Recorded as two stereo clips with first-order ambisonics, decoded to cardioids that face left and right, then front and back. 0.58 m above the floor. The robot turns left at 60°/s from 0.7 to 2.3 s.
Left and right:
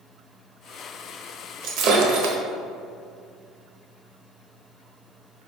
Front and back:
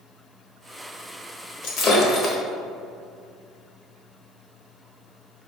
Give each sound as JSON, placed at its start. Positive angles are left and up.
{"t": 1.6, "sound": "breaking glass", "azimuth_deg": -40, "distance_m": 1.0}